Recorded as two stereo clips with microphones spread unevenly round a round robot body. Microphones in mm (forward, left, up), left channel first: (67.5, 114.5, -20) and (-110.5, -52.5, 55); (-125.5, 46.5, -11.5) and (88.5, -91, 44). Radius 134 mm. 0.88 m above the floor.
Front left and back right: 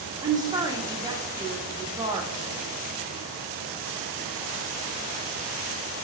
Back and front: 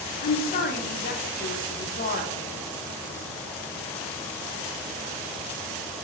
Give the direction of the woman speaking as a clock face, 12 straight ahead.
8 o'clock.